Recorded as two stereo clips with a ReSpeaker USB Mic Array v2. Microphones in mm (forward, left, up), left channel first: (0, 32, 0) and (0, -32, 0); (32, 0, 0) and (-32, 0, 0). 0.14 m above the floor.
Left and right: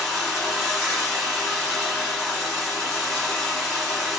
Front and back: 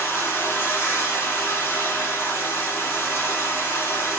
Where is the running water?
10° right, 1.6 m.